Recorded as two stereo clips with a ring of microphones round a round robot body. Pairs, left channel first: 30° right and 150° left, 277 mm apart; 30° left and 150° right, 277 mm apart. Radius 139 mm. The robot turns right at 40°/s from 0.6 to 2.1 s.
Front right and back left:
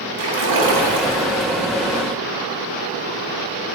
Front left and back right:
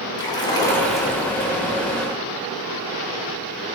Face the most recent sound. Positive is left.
turn(degrees=165)